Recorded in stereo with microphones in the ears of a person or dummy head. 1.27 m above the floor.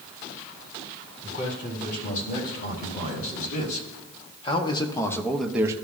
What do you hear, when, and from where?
1.2 s a man speaking: 55° left (ahead or behind), 5 m; by 5.8 s 25° right (ahead or behind), 0.9 m